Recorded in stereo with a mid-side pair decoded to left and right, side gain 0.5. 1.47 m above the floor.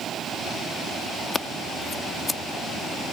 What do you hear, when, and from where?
1.3 s scissors: 25° left